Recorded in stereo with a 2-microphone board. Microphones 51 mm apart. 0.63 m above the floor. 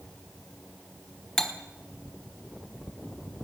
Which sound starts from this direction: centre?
Cutlery clinking, at 1.4 s.